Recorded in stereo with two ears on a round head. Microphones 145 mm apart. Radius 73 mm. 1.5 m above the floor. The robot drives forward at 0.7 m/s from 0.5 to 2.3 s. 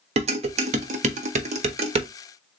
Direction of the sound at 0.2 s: 45° right (ahead or behind).